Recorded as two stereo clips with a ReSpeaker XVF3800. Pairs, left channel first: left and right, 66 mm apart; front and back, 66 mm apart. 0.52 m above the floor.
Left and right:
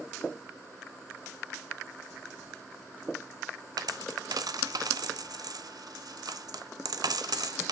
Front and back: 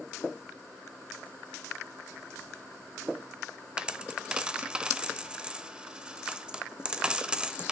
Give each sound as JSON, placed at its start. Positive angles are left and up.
{"t": 3.8, "sound": "a dropped coin", "azimuth_deg": -100, "distance_m": 0.7}